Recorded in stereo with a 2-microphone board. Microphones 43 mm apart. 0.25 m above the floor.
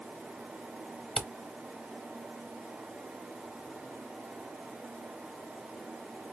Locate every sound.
1.2 s a camera shutter: 20° left (ahead or behind), 0.7 m